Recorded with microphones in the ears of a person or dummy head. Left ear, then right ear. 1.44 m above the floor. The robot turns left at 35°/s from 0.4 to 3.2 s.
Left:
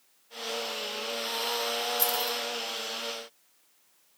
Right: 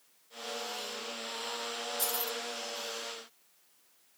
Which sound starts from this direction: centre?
Keys jangling, at 2.0 s.